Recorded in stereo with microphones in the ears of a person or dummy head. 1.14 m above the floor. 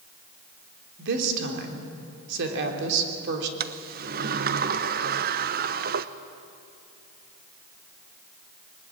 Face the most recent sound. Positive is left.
turn(degrees=-40)  # may be behind; listen again after turning